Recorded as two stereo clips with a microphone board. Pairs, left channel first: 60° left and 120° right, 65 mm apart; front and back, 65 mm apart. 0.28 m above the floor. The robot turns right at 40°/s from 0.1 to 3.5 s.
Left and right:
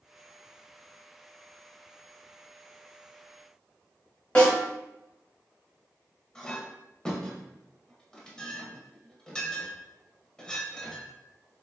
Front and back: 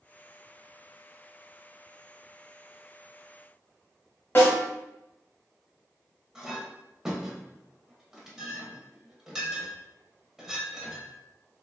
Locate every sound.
4.3 s a snare drum: 10° left, 1.1 m
6.3 s a clink: 110° left, 0.5 m